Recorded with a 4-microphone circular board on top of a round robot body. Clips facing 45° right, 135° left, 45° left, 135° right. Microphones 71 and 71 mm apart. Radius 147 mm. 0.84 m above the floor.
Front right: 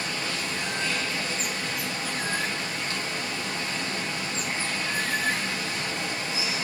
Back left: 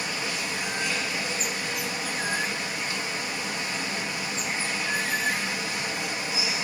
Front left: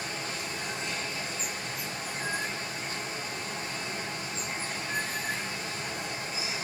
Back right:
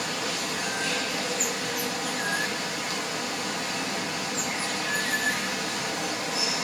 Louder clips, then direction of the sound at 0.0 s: Even, back right 5 dB; 150° right.